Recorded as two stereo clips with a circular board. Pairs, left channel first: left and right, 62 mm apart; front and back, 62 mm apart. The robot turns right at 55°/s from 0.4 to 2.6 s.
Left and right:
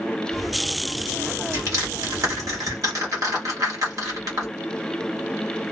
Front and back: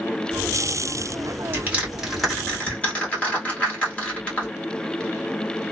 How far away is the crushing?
About 1.6 m.